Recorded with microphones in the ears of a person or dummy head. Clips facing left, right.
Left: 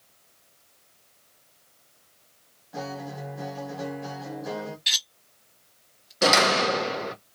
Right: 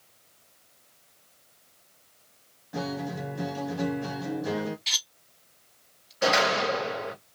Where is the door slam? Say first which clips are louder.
Left 2 dB; 60° left (ahead or behind), 0.8 m.